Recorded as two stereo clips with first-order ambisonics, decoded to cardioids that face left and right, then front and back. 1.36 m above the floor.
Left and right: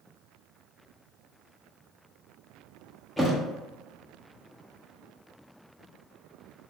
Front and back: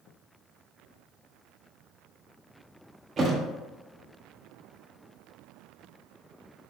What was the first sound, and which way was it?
A thud, 175° left.